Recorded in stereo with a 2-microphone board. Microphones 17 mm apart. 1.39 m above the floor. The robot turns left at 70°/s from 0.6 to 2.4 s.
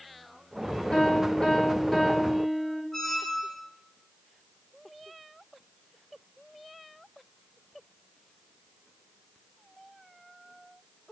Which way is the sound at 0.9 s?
90° left.